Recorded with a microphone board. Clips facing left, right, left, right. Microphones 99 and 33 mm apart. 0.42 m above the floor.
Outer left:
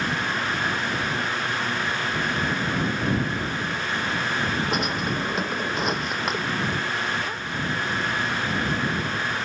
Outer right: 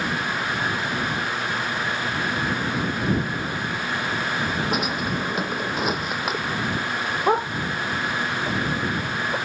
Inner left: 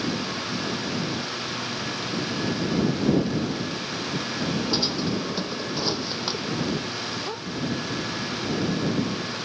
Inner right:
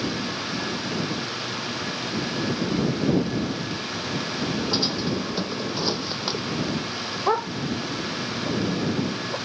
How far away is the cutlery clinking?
I don't hear cutlery clinking.